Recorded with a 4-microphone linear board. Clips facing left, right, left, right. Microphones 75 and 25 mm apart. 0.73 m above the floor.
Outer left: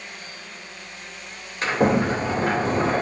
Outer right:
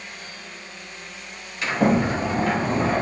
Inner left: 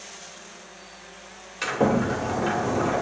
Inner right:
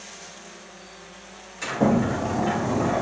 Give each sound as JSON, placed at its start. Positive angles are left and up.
{"t": 1.6, "sound": "a sliding door", "side_deg": 40, "distance_m": 2.5}